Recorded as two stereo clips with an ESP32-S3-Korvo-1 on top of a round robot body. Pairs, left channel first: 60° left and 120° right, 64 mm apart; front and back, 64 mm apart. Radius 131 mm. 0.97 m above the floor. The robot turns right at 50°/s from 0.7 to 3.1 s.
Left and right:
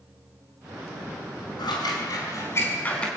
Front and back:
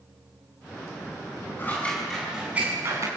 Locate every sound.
1.6 s scissors: 60° left, 5 m; by 3.1 s 135° left, 5 m